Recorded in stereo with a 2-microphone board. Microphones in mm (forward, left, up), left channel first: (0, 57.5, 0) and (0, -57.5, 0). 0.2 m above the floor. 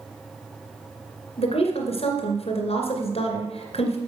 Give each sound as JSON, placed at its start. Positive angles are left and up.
{"t": 1.4, "sound": "a woman speaking", "side_deg": 60, "distance_m": 2.5}